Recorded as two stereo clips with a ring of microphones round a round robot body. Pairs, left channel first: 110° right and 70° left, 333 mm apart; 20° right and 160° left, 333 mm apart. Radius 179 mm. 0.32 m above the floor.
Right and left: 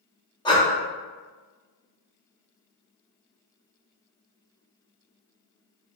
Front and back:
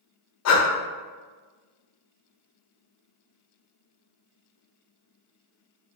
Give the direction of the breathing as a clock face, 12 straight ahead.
1 o'clock.